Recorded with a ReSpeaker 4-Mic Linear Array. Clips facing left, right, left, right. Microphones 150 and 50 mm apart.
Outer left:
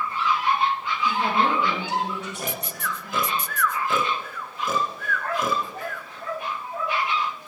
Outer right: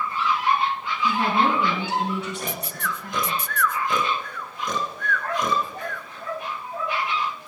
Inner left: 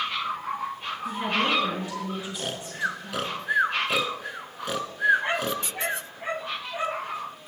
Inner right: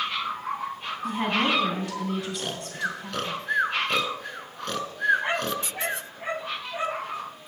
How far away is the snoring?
About 0.7 m.